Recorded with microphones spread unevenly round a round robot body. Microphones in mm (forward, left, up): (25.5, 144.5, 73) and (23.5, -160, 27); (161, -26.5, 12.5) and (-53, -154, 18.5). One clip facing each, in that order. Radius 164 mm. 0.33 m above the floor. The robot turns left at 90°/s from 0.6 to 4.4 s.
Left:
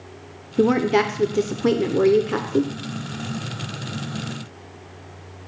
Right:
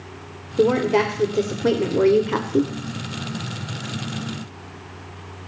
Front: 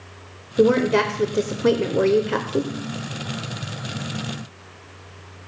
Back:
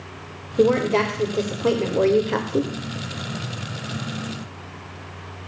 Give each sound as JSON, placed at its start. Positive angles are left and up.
{"t": 0.6, "sound": "a woman speaking", "azimuth_deg": 105, "distance_m": 1.0}